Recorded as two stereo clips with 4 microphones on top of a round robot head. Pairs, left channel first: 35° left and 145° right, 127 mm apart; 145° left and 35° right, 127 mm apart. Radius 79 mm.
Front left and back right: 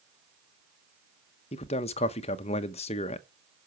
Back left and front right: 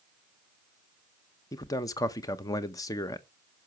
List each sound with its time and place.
1.5 s a man speaking: 80° left, 0.8 m